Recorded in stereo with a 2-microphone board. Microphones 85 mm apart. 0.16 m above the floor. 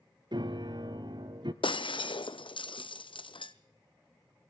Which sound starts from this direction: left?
Breaking glass, at 1.6 s.